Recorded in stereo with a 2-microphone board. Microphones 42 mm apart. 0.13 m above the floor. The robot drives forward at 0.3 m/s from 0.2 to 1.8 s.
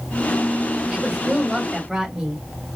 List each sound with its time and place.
0.9 s a woman speaking: 10° right (ahead or behind), 2 m